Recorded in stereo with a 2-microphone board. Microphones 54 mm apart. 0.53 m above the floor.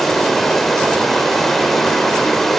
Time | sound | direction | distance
0.0 | running water | 5° left (ahead or behind) | 0.7 m